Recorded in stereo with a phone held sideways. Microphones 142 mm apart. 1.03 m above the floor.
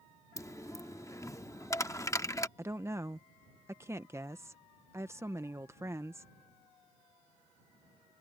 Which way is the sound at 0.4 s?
20° left (ahead or behind).